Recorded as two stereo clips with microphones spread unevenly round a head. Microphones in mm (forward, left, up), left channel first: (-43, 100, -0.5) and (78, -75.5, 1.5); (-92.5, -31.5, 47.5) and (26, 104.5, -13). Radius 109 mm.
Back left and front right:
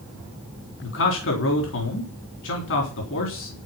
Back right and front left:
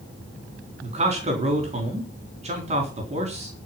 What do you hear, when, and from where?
0.8 s a man speaking: 100° left, 3.5 m